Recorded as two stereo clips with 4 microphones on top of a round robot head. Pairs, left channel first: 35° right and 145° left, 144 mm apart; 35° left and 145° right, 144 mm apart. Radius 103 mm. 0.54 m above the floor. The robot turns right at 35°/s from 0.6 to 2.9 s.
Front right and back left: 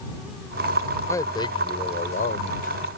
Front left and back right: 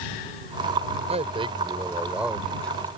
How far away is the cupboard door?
No cupboard door in this recording.